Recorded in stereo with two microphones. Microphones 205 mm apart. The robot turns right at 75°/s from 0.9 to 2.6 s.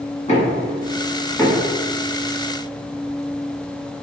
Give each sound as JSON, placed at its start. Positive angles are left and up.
{"t": 0.3, "sound": "knocking", "side_deg": 35, "distance_m": 1.6}